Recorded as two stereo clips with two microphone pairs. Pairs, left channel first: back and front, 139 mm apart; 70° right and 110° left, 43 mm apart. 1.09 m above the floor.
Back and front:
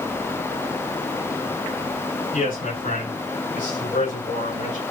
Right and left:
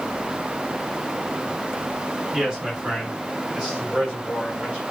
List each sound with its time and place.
2.3 s a man speaking: straight behind, 6 m; by 4.8 s 170° left, 7.5 m